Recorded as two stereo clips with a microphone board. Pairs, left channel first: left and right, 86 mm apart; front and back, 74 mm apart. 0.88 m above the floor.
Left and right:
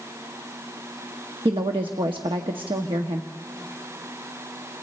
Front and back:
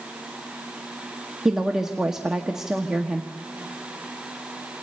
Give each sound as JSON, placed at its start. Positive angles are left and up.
{"t": 1.4, "sound": "a woman speaking", "azimuth_deg": -95, "distance_m": 1.0}